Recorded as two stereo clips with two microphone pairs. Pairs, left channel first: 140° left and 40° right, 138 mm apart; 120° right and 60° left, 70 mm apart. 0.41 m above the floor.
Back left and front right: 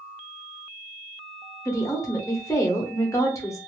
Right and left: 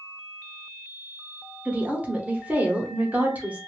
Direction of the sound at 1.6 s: 100° left.